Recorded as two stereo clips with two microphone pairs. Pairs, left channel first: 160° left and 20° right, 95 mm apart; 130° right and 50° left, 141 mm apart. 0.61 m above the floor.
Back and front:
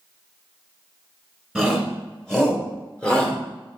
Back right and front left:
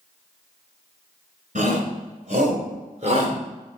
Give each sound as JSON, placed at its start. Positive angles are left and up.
{"t": 1.6, "sound": "a shout", "azimuth_deg": 75, "distance_m": 3.5}